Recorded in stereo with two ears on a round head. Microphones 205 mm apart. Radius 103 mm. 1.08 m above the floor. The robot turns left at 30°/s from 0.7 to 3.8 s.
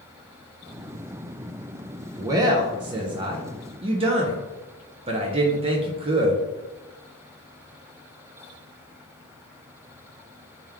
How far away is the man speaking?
About 0.6 m.